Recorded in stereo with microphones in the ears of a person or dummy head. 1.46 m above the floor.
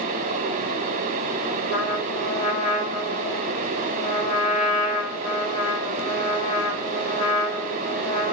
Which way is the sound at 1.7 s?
40° left (ahead or behind).